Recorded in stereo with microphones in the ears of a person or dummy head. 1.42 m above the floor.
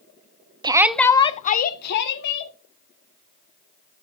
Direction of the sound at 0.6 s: 25° right (ahead or behind).